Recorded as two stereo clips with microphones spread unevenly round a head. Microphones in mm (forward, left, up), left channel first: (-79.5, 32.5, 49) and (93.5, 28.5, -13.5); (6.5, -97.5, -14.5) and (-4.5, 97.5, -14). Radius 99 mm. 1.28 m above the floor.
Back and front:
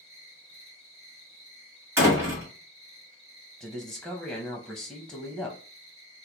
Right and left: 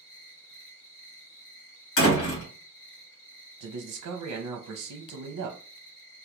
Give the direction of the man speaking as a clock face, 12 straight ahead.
9 o'clock.